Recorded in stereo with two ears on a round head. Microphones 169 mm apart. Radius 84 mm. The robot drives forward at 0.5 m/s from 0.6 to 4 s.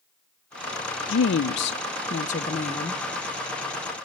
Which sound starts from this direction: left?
A woman speaking, at 1.1 s.